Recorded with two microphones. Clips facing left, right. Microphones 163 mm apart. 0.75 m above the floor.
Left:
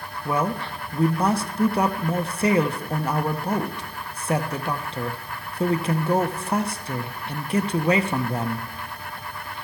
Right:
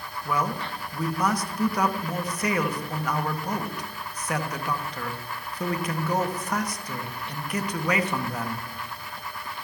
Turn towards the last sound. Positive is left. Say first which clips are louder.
# left 3 dB
turn(degrees=30)  # may be behind; listen again after turning